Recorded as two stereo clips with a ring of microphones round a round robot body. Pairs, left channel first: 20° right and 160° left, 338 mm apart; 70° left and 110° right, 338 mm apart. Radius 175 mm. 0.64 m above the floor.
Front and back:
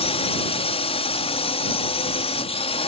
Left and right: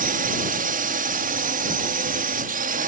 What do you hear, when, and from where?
0.0 s a drone: 75° right